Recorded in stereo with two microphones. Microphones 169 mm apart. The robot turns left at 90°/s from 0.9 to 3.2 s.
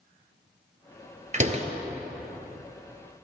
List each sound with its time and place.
1.3 s a door slam: 45° right (ahead or behind), 1.5 m; by 1.7 s 40° right (ahead or behind), 1.5 m